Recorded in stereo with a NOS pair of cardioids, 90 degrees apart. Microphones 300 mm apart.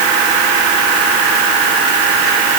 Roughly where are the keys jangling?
No keys jangling in this recording.